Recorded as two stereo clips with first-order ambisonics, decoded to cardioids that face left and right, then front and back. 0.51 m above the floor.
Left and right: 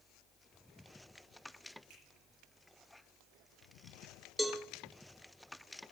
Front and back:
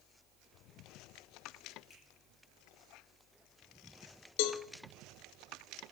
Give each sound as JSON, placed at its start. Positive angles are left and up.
{"t": 1.9, "sound": "a finger snap", "azimuth_deg": -60, "distance_m": 6.0}
{"t": 4.4, "sound": "a cowbell", "azimuth_deg": -5, "distance_m": 0.6}